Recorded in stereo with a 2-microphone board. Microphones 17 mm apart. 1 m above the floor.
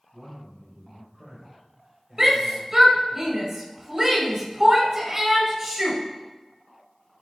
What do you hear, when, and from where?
0.1 s a man speaking: 5° right (ahead or behind), 6.5 m
2.2 s a shout: 20° right (ahead or behind), 5.5 m